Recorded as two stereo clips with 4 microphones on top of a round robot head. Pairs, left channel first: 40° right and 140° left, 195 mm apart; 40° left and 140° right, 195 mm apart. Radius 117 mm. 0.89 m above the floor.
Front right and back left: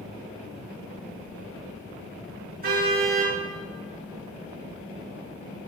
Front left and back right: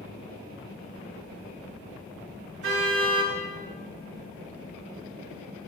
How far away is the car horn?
About 7.5 m.